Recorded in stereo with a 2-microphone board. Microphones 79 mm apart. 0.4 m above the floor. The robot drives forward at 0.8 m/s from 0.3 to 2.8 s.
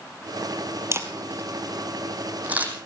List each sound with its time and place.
0.9 s a camera shutter: 35° right (ahead or behind), 1.6 m; by 2.7 s 20° right (ahead or behind), 3 m